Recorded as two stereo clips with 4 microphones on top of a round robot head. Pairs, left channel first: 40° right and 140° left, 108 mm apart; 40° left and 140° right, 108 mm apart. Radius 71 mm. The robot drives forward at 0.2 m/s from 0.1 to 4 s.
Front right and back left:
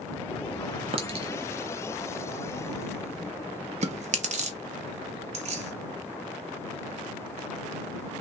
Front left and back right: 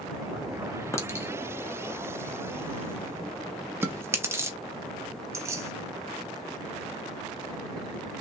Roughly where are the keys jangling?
Behind left.